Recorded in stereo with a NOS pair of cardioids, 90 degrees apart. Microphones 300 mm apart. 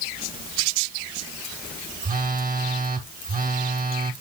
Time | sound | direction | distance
2.0 | a phone buzzing | 30° right | 2 m